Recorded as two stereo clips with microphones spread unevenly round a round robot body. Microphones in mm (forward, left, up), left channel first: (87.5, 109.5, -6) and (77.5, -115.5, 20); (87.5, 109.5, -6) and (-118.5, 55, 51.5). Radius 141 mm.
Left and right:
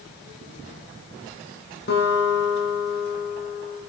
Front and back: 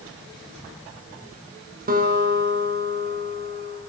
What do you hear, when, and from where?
1.9 s a guitar: 145° left, 6 m